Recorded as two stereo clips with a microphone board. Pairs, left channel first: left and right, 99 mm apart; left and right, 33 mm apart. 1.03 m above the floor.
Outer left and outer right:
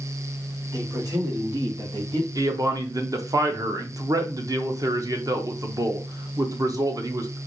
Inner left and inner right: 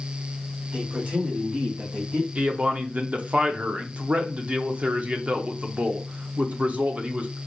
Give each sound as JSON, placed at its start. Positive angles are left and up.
{"t": 0.7, "sound": "a man speaking", "side_deg": -35, "distance_m": 1.9}
{"t": 2.4, "sound": "a man speaking", "side_deg": -35, "distance_m": 0.7}